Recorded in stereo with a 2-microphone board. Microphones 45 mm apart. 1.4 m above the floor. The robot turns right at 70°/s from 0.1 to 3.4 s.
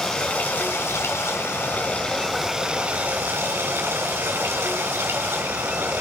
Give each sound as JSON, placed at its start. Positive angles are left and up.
{"t": 0.0, "sound": "running water", "azimuth_deg": 25, "distance_m": 5.5}